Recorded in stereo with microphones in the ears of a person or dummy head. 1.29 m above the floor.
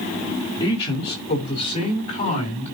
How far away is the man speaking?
About 4 m.